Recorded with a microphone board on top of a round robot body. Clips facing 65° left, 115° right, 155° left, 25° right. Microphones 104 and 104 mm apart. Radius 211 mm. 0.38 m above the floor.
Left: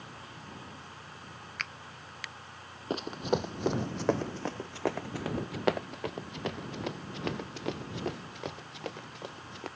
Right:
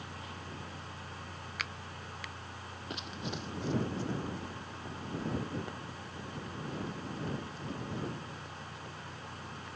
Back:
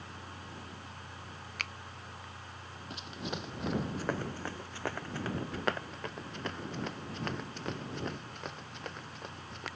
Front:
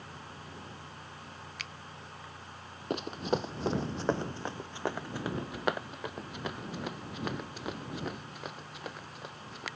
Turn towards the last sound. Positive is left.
turn(degrees=60)